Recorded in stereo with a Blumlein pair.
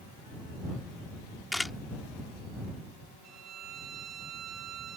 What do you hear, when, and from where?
1.5 s a camera shutter: 5° left
3.2 s a violin: 30° right